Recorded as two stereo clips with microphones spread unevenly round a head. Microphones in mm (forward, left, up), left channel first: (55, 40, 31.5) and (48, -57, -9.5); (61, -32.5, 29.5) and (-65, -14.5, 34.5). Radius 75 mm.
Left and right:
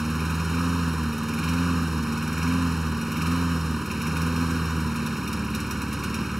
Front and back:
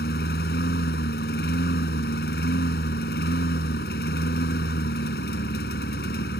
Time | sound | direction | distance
0.0 | a lawn mower | straight ahead | ?